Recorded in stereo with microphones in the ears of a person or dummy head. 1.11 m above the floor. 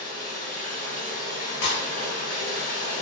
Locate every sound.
0.0 s running water: 35° left (ahead or behind), 1.4 m
1.6 s breaking glass: 55° left (ahead or behind), 0.6 m